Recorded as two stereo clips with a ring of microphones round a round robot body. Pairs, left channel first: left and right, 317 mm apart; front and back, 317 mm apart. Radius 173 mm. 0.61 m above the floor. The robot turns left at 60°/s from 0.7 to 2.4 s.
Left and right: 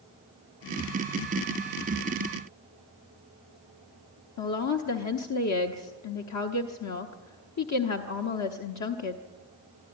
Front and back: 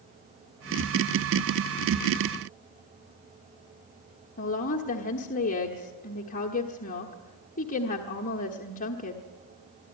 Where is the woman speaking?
65° left, 1.1 m.